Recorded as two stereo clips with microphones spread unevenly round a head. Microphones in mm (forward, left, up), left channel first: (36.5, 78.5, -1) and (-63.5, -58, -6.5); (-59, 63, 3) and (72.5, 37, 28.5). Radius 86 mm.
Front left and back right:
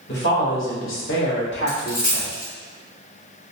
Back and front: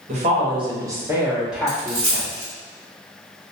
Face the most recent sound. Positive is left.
turn(degrees=20)